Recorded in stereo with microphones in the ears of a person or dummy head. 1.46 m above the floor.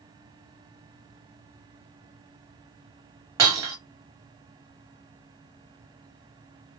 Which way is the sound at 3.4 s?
20° right (ahead or behind).